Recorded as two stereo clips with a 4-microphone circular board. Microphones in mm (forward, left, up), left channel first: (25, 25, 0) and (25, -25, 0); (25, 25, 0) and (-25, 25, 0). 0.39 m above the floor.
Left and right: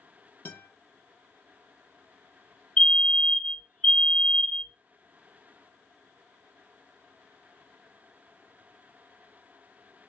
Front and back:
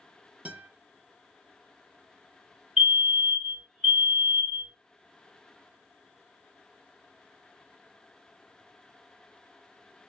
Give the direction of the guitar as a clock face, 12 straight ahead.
8 o'clock.